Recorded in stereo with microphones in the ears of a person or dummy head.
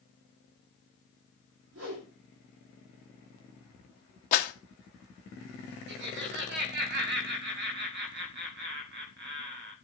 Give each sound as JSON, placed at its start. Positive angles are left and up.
{"t": 1.7, "sound": "a whoosh", "side_deg": -70, "distance_m": 3.0}
{"t": 4.3, "sound": "a clap", "side_deg": 40, "distance_m": 1.0}
{"t": 5.9, "sound": "laughter", "side_deg": -55, "distance_m": 1.5}